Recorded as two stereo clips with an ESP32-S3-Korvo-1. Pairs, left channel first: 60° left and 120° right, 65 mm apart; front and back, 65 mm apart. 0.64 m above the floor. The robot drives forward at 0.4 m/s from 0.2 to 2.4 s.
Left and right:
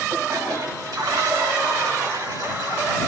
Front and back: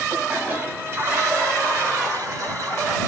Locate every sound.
0.1 s a toilet flushing: 115° right, 1.4 m; by 3.0 s 140° right, 1.9 m